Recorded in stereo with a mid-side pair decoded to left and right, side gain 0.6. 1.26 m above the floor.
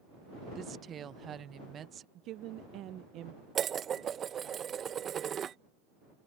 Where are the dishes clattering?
40° right.